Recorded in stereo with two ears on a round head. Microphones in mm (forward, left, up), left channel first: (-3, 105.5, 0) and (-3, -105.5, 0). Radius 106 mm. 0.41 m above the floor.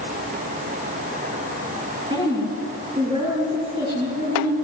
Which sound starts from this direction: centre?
A woman speaking, at 2.1 s.